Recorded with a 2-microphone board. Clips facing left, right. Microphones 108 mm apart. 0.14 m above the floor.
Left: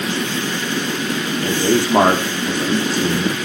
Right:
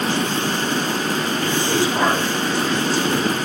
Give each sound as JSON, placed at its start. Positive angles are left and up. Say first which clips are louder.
{"t": 1.4, "sound": "a man speaking", "louder": "left 5 dB", "side_deg": 55, "distance_m": 7.5}